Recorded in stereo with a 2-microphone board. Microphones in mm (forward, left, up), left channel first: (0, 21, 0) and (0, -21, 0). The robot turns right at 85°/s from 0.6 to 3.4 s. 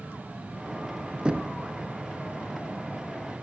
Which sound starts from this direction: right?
Knocking, at 1.2 s.